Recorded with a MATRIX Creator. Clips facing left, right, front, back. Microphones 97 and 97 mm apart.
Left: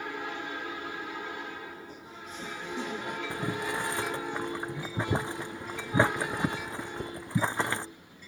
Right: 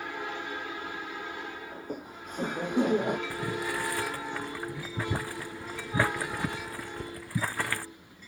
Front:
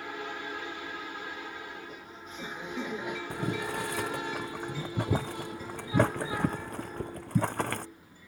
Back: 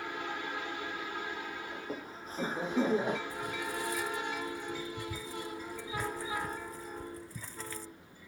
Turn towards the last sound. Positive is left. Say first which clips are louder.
# even, front 4 dB
turn(degrees=20)